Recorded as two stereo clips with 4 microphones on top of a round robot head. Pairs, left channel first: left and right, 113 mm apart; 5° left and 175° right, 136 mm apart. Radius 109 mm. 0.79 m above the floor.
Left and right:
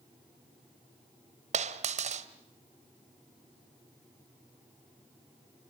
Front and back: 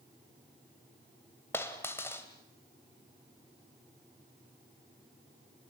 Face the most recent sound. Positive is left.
turn(degrees=-75)